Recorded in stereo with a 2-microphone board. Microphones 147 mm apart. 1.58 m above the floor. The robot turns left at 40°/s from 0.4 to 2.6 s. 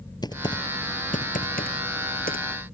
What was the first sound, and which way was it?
Typing on a keyboard, 25° left (ahead or behind).